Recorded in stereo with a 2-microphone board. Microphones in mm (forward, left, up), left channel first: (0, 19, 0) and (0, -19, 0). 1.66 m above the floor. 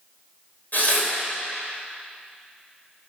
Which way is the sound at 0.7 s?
45° left (ahead or behind).